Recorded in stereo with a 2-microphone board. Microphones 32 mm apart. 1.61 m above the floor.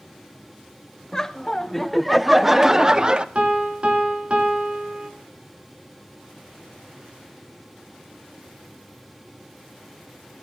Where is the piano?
40° right (ahead or behind), 3 m.